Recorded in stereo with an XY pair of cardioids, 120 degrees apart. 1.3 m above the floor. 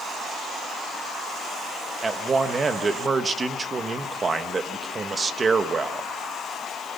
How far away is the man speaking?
About 1.4 m.